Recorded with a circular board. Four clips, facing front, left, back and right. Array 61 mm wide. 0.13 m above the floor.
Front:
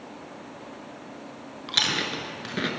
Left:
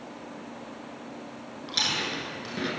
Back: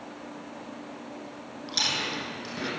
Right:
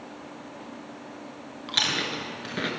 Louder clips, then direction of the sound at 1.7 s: Right 2 dB, front 3 dB; 30° right.